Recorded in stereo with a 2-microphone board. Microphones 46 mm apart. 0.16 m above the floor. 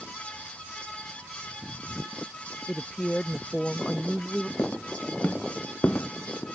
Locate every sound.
2.7 s a woman speaking: 15° left (ahead or behind)
4.6 s footsteps: 45° left (ahead or behind)